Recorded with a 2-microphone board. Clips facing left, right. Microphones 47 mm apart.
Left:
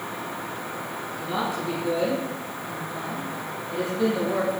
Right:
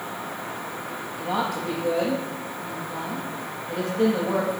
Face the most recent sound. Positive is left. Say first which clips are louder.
# right 2 dB
turn(degrees=-55)  # may be behind; listen again after turning